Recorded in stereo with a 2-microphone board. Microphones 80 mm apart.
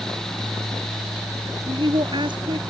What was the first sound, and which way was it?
A woman speaking, 85° right.